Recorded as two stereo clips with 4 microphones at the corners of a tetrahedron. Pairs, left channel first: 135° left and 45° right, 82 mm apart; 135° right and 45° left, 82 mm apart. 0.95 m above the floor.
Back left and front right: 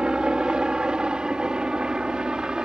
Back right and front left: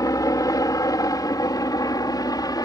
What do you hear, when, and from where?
0.0 s a helicopter: 120° right